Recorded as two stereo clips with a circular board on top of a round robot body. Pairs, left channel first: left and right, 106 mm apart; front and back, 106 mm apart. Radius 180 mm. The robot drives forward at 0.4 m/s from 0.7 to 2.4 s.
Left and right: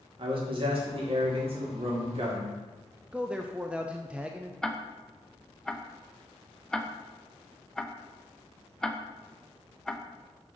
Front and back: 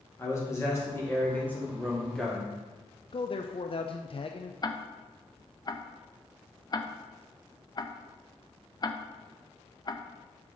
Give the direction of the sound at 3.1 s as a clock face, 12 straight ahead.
12 o'clock.